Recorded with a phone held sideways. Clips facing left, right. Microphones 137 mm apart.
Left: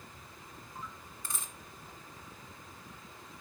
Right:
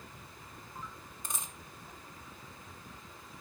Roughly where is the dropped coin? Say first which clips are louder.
Right 1 dB; centre.